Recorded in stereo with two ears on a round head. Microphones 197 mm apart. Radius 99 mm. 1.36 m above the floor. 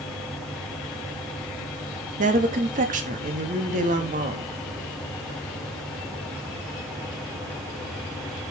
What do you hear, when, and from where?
2.2 s a woman speaking: 35° right (ahead or behind), 2.5 m